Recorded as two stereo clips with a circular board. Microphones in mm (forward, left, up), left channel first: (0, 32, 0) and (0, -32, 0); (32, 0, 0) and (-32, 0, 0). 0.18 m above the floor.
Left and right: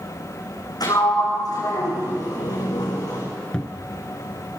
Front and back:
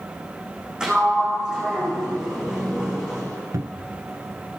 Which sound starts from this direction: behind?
A cupboard door, at 3.5 s.